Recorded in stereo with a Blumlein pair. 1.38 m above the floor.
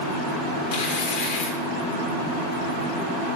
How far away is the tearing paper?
About 1.2 m.